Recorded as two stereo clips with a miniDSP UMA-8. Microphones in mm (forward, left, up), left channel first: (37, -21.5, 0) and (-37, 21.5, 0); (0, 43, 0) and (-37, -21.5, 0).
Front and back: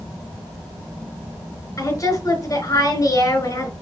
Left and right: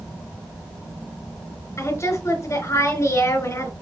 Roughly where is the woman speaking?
Ahead.